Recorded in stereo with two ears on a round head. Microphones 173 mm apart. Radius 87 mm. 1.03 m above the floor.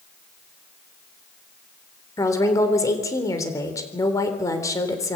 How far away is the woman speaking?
About 3.5 m.